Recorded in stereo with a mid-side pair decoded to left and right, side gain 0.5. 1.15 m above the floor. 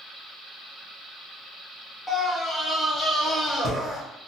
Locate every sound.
2.1 s a scream: 25° left, 1.7 m